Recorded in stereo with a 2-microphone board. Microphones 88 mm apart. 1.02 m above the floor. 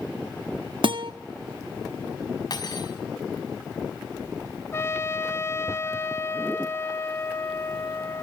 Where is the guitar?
70° right (ahead or behind), 1.2 m.